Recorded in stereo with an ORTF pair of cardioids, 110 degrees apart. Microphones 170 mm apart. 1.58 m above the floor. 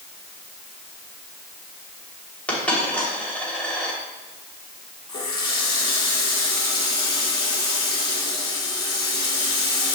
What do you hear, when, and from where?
2.5 s a dropped coin: 10° left, 3 m
5.1 s a running tap: 30° left, 2.5 m